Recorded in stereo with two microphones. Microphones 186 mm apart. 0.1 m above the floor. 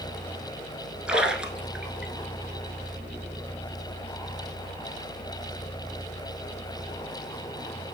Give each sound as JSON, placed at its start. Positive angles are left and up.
{"t": 1.1, "sound": "a splash", "side_deg": -5, "distance_m": 0.9}